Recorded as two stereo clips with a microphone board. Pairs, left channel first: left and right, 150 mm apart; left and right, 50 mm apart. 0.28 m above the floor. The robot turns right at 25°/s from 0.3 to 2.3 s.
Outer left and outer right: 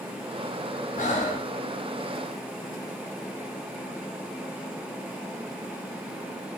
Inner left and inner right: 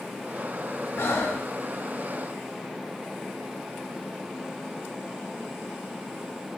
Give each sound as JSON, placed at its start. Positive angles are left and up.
{"t": 1.0, "sound": "breathing", "side_deg": 55, "distance_m": 1.0}